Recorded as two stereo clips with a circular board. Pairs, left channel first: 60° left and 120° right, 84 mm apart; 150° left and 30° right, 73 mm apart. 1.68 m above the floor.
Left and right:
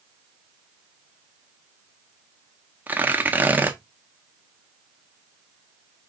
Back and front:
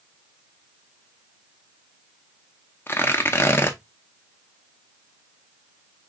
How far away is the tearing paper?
About 0.6 m.